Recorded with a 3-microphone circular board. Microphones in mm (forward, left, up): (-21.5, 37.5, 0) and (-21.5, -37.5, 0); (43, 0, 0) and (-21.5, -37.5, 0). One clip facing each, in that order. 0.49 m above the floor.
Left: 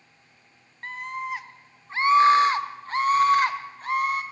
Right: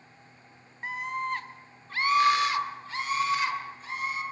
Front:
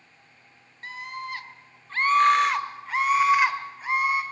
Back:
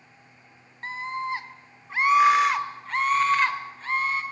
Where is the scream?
165° right, 1.0 m; by 4.2 s 105° left, 2.0 m.